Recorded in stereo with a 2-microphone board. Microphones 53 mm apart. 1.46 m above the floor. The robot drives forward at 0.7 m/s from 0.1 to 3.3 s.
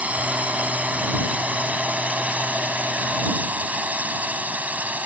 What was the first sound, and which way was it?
A drone, 25° right (ahead or behind).